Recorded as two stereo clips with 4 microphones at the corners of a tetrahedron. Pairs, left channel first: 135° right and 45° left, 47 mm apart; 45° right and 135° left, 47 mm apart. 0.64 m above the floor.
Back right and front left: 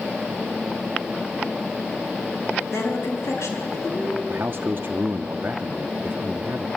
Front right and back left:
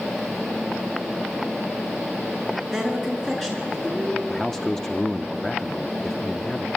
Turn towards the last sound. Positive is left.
turn(degrees=30)